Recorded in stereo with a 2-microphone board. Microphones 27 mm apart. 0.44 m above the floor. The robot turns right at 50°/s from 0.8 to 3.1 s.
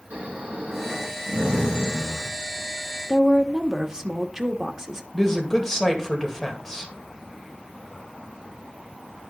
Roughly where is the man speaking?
Centre.